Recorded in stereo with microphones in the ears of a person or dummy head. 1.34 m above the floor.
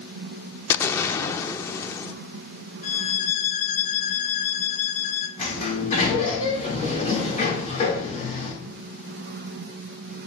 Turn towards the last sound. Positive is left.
turn(degrees=45)  # may be behind; listen again after turning